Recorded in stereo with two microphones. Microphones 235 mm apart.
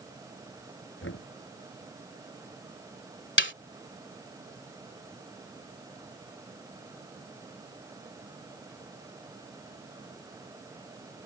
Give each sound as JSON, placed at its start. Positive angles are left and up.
{"t": 1.0, "sound": "knocking", "side_deg": 60}
{"t": 3.4, "sound": "a snare drum", "side_deg": 50}